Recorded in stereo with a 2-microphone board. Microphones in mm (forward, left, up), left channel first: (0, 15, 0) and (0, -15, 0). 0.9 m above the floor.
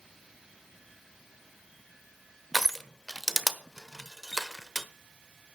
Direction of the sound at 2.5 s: Centre (ahead or behind).